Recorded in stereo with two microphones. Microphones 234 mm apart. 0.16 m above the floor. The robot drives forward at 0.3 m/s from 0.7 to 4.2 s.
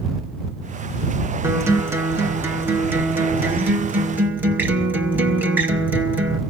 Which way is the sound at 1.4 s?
10° right (ahead or behind).